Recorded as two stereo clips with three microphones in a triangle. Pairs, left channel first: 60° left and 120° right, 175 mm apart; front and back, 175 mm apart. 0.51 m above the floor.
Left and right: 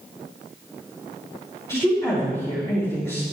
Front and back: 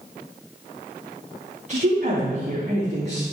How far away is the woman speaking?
About 3.5 m.